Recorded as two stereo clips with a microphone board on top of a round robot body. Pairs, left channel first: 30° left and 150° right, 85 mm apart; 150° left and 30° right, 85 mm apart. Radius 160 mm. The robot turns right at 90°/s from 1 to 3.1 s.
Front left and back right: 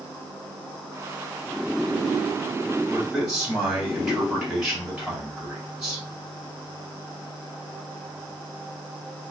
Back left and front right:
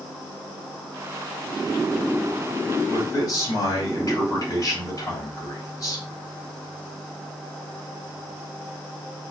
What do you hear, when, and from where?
2.9 s a man speaking: 110° left, 2 m; by 6.0 s 130° left, 2 m